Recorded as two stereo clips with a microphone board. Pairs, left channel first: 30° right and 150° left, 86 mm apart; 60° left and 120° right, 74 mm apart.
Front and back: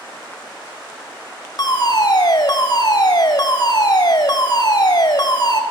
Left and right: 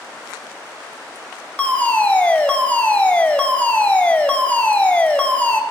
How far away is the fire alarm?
About 3.5 m.